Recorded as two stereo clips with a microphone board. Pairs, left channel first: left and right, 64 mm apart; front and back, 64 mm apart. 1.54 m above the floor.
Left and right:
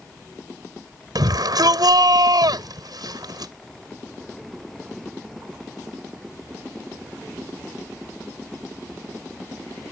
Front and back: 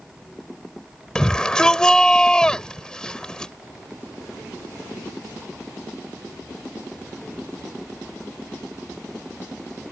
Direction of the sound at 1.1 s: 80° right.